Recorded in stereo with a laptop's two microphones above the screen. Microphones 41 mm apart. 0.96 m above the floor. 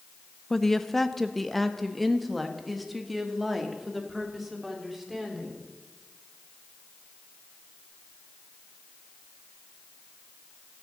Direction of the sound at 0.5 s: 10° left (ahead or behind).